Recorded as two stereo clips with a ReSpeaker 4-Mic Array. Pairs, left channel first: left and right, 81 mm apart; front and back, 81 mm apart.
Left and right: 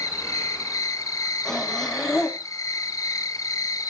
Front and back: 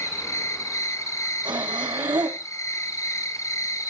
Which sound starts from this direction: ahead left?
An insect, at 0.0 s.